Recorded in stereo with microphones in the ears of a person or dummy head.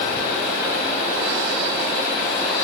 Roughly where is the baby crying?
I don't hear a baby crying.